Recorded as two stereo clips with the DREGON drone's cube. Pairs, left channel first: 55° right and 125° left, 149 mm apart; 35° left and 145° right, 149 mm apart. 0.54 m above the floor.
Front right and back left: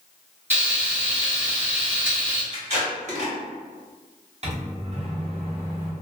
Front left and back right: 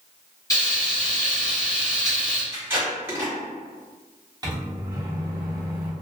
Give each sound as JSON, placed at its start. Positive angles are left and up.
{"t": 0.5, "sound": "frying", "azimuth_deg": 65, "distance_m": 1.3}
{"t": 2.5, "sound": "tape being pulled", "azimuth_deg": 145, "distance_m": 1.6}
{"t": 4.4, "sound": "a microwave", "azimuth_deg": 155, "distance_m": 0.6}